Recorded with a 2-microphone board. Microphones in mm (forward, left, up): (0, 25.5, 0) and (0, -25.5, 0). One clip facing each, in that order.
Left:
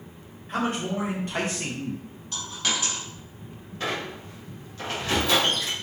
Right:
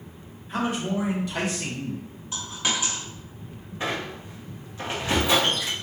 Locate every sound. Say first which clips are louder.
0.5 s a man speaking: right 1 dB; 60° left (ahead or behind), 1.3 m; by 2.0 s 15° left (ahead or behind), 0.5 m
2.3 s a dropped coin: right 1 dB; 15° right (ahead or behind), 1.0 m
3.8 s a squeak: right 1 dB; 20° right (ahead or behind), 0.7 m